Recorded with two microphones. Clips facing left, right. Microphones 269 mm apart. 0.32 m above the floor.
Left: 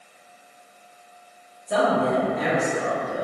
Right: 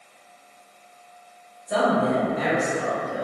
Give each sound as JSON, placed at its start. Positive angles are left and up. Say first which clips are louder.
{"t": 1.7, "sound": "a woman speaking", "louder": "even", "side_deg": 0, "distance_m": 1.2}